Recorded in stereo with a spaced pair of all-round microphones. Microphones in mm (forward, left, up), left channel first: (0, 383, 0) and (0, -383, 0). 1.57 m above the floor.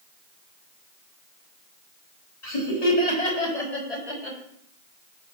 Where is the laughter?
55° left (ahead or behind), 4 m; by 4.4 s 50° left (ahead or behind), 3 m.